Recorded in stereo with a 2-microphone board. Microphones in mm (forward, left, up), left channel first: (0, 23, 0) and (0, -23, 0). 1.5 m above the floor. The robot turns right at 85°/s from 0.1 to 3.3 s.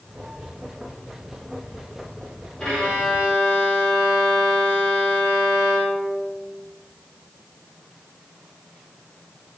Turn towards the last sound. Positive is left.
turn(degrees=70)